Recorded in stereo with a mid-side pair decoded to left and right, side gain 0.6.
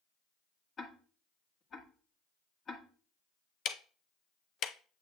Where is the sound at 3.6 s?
50° left, 0.5 m.